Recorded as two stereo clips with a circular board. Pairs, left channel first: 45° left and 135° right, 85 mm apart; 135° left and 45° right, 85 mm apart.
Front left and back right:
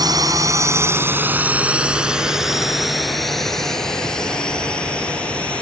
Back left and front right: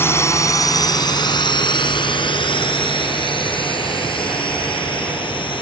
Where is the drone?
165° right; by 5.6 s 120° left.